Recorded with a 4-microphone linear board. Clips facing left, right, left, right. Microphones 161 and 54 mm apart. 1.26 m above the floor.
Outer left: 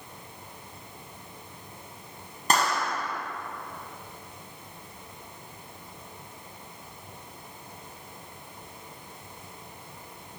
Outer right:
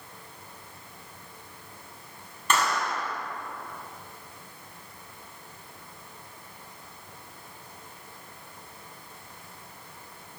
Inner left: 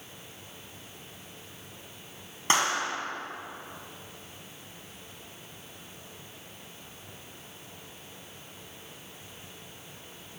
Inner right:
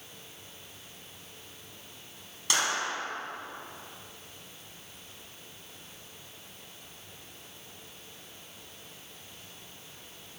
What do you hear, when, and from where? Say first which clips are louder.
2.5 s a clap: outer left 1 dB, inner left 3 dB; 35° left (ahead or behind), 7.5 m